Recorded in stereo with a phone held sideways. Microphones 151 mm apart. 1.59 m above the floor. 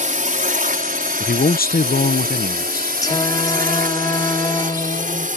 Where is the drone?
60° right (ahead or behind).